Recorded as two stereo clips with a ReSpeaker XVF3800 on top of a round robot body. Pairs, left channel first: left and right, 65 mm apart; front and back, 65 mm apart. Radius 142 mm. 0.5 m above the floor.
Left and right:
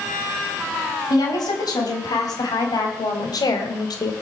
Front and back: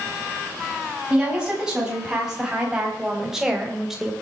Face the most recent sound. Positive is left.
turn(degrees=95)